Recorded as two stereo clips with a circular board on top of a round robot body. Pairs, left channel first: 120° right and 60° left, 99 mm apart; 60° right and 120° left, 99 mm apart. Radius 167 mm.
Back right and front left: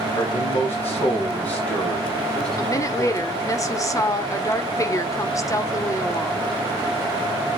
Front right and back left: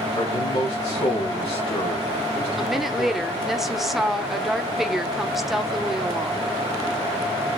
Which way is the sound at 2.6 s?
155° right.